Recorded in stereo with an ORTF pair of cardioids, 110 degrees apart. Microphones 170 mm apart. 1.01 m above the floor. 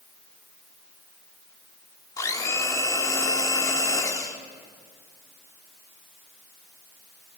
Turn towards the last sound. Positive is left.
turn(degrees=20)